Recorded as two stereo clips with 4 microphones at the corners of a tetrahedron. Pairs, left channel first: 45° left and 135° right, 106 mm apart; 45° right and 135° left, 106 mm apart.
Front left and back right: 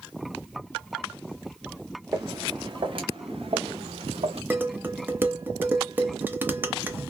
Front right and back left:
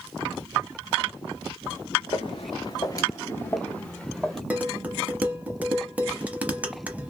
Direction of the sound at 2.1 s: 75° right.